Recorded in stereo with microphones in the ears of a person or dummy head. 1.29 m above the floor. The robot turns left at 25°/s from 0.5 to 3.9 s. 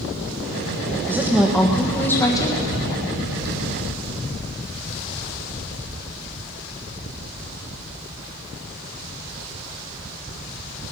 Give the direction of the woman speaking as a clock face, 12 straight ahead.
6 o'clock.